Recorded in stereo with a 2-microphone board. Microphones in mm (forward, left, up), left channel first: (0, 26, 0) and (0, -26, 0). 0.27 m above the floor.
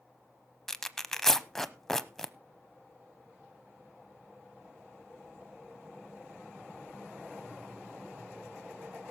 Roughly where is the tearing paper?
Centre.